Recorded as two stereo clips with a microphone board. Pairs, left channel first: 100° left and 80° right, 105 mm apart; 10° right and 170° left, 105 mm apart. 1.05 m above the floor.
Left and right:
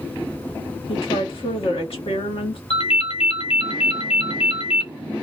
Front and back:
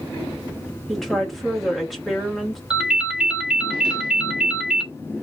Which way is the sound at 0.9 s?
80° left.